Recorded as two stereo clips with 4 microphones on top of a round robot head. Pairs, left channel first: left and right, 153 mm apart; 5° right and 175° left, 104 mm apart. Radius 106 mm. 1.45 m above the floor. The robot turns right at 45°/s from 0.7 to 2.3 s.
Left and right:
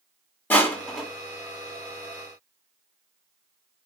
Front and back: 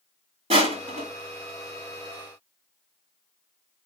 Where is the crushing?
165° left, 1.4 m; by 1.1 s 175° right, 1.4 m.